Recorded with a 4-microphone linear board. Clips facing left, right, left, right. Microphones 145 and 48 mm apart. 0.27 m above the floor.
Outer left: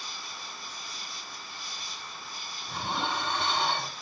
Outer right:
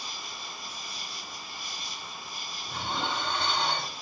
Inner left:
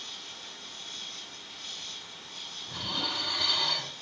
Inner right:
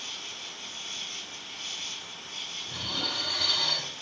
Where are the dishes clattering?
5° left (ahead or behind), 1.3 m.